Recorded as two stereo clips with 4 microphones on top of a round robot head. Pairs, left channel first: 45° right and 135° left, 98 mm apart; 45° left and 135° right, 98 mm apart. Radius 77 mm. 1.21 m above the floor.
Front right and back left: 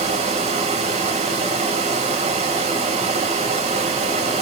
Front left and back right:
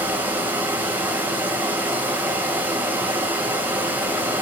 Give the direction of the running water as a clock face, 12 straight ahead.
7 o'clock.